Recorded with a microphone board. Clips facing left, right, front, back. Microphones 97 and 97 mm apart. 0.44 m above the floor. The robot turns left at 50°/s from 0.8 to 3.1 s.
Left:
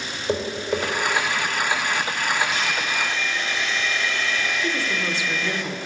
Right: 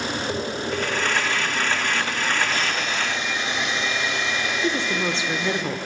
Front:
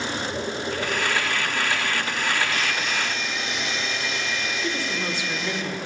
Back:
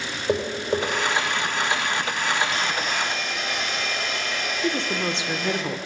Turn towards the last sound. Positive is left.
turn(degrees=-135)